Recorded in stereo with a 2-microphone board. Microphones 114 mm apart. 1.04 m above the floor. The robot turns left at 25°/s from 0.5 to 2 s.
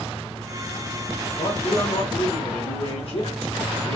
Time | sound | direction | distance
1.4 | a man speaking | 60° left (ahead or behind) | 1.7 m